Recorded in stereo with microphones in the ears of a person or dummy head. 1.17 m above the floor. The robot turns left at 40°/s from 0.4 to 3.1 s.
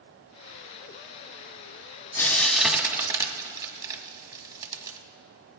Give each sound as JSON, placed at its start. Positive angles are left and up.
{"t": 2.2, "sound": "frying", "side_deg": 15, "distance_m": 1.4}